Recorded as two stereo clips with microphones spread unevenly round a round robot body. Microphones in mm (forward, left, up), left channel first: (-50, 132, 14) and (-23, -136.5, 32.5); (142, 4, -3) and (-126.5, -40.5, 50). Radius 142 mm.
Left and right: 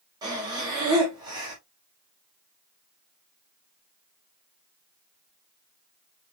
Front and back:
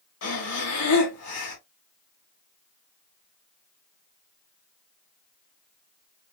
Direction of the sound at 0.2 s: 5° right.